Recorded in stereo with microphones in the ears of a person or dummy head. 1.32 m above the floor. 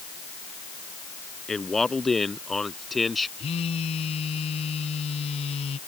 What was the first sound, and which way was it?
A man speaking, centre (ahead or behind).